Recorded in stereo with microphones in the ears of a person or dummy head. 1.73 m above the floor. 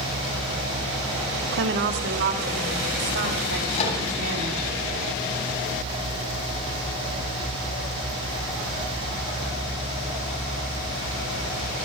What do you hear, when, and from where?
1.5 s a woman speaking: 65° right (ahead or behind), 1.7 m; by 4.6 s 60° right (ahead or behind), 5.5 m
3.7 s a microwave: 35° left (ahead or behind), 7.5 m